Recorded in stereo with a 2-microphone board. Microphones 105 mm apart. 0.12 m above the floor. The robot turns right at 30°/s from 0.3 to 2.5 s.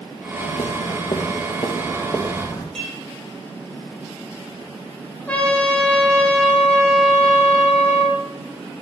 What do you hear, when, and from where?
0.4 s footsteps: 80° left, 2 m; by 2.6 s 35° left (ahead or behind), 3.5 m
2.8 s dishes clattering: 10° left (ahead or behind), 4 m
5.3 s a trumpet: 10° left (ahead or behind), 3 m